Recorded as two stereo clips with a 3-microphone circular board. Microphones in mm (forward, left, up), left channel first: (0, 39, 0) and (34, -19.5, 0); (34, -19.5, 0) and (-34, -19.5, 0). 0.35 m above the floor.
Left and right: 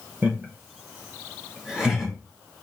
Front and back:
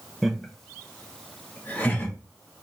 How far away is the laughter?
About 1.2 m.